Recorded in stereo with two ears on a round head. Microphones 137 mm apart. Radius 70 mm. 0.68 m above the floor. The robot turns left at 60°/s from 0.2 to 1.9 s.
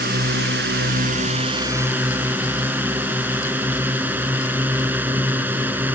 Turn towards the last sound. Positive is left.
turn(degrees=-170)